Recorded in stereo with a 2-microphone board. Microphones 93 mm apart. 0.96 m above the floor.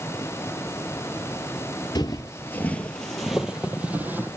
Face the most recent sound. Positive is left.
turn(degrees=-20)  # may be behind; listen again after turning